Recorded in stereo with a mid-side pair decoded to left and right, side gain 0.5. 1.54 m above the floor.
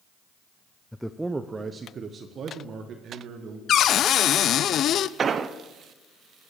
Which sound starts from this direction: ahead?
A man speaking, at 0.9 s.